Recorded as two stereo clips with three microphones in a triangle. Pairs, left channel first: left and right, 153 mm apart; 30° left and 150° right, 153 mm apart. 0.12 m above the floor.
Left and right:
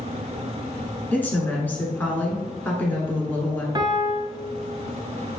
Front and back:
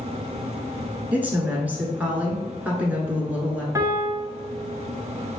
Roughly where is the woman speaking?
Behind left.